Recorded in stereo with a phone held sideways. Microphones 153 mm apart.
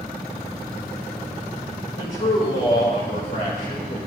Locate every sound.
2.0 s a man speaking: 55° left (ahead or behind), 4.5 m; by 4.0 s 65° left (ahead or behind), 5 m